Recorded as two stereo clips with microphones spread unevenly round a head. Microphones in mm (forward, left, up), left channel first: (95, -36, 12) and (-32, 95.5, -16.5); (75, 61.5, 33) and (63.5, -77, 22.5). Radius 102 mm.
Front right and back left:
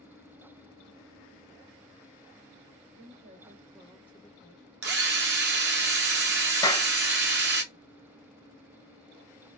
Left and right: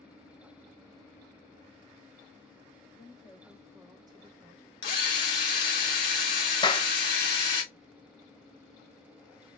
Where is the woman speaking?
150° left, 1.1 m; by 4.7 s 75° right, 0.8 m.